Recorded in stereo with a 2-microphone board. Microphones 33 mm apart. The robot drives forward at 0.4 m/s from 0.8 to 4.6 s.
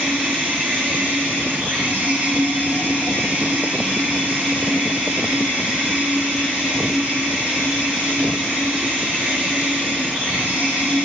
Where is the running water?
60° right (ahead or behind), 1.4 m; by 11.0 s 40° right (ahead or behind), 1.9 m.